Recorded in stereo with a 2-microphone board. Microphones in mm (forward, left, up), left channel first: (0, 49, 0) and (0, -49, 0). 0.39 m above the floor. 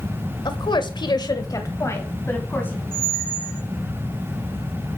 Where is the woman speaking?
50° left (ahead or behind), 1.2 m; by 2.8 s 20° left (ahead or behind), 2.5 m.